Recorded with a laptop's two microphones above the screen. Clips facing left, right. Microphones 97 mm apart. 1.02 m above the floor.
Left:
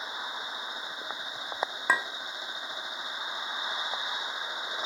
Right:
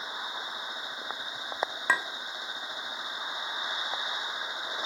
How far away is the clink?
About 1.2 m.